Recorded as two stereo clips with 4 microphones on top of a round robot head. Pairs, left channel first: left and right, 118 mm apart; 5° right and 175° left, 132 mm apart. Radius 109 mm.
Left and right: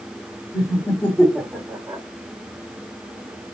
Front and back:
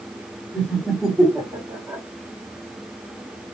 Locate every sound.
0.5 s laughter: 60° left, 1.1 m; by 2.0 s 145° right, 1.3 m